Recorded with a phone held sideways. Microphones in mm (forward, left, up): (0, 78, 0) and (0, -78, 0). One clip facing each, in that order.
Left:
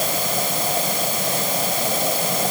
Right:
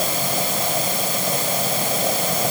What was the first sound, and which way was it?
Only background noise.